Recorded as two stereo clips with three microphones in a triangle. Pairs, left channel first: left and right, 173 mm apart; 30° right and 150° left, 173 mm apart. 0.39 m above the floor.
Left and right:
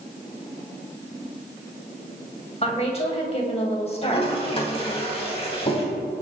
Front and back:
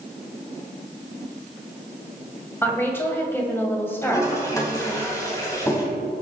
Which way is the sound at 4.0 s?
40° left.